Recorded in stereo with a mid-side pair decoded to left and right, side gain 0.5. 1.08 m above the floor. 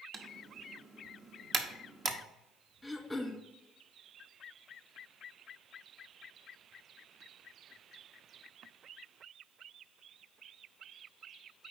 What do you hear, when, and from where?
0.1 s typing on a keyboard: 40° right, 1.0 m
2.8 s throat clearing: 10° left, 1.2 m